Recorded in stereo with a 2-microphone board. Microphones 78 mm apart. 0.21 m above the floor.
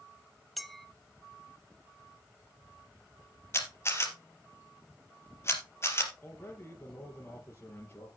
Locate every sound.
0.6 s a clink: centre (ahead or behind), 1.0 m
3.5 s a camera shutter: 35° left (ahead or behind), 3 m
6.2 s a man speaking: 25° left (ahead or behind), 4.5 m